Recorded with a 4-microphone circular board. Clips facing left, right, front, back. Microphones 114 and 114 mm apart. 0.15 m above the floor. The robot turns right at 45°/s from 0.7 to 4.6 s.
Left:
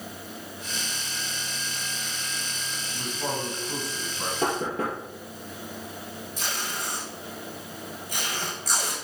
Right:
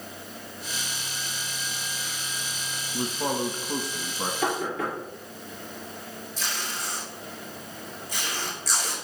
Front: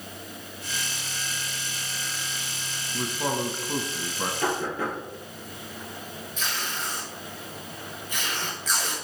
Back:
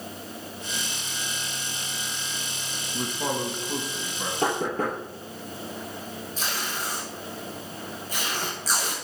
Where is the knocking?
135° left, 2.5 m; by 5.0 s 140° left, 2.5 m.